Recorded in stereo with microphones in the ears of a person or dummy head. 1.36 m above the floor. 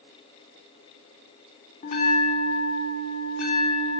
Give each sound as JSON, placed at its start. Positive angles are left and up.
{"t": 1.8, "sound": "a bell", "side_deg": 40, "distance_m": 3.0}